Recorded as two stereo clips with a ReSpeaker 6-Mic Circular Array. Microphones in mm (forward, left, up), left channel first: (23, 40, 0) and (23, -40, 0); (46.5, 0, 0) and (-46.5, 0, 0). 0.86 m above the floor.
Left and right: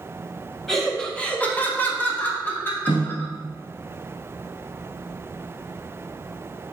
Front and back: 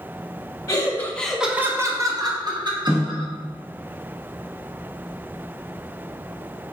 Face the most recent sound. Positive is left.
turn(degrees=100)